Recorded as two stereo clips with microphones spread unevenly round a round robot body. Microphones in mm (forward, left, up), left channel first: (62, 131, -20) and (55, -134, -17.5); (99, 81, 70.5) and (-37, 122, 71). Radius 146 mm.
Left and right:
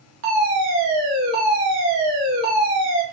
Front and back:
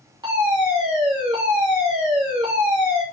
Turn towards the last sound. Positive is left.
turn(degrees=-135)